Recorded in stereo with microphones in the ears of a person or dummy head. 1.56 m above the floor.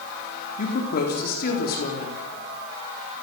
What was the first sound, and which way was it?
A woman speaking, 50° left (ahead or behind).